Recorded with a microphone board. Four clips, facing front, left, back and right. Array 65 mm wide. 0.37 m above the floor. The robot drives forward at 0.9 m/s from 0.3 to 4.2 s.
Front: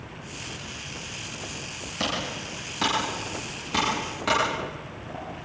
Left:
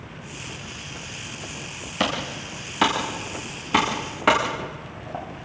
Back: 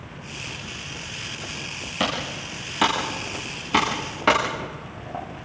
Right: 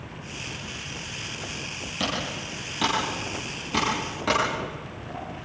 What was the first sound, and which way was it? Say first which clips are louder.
Typing on a keyboard: left 4 dB, back 3 dB; 110° left.